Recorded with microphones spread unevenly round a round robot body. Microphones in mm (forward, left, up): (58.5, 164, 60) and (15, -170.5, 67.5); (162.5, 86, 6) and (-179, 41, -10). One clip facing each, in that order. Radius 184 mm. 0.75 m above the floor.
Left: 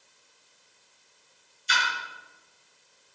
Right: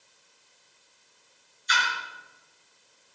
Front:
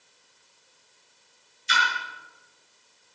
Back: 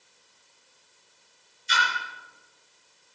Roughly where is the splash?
Ahead left.